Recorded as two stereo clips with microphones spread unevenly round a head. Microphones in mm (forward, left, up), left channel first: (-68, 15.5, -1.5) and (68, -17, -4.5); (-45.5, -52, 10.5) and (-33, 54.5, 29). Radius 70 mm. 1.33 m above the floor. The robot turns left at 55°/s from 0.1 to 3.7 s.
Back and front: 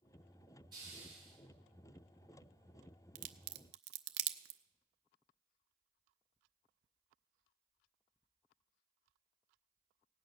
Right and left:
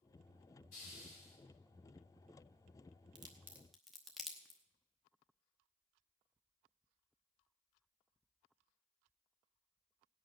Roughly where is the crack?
Ahead left.